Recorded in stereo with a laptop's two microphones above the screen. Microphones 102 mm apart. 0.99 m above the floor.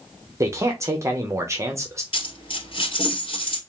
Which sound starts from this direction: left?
A dropped coin, at 2.1 s.